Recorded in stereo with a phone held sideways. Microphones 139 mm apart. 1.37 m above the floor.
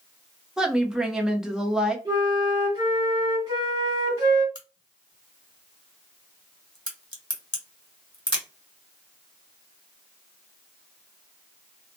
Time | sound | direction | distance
0.6 | a woman speaking | 5° right (ahead or behind) | 0.7 m
2.0 | a flute | 30° right (ahead or behind) | 1.2 m
4.5 | a crack | 35° left (ahead or behind) | 1.4 m